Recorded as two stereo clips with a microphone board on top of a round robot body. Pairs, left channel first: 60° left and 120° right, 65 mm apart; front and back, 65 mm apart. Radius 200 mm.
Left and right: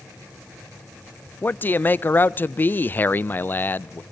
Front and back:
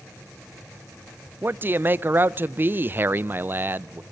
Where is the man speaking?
120° left, 0.6 m.